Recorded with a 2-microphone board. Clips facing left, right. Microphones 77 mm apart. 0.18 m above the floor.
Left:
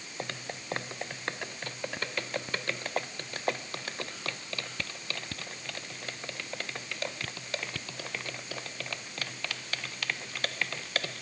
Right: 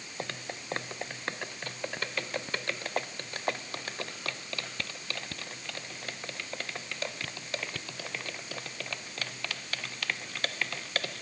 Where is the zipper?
No zipper in this recording.